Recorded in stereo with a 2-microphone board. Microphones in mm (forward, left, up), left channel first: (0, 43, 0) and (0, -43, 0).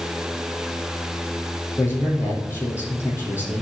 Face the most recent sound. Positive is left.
turn(degrees=30)  # may be behind; listen again after turning